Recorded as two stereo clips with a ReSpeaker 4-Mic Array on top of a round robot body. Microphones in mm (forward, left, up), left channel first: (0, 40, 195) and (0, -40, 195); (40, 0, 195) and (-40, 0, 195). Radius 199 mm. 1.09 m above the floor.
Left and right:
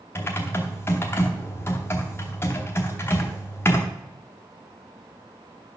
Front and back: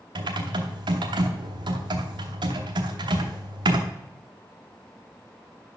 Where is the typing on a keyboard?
150° left, 0.8 m.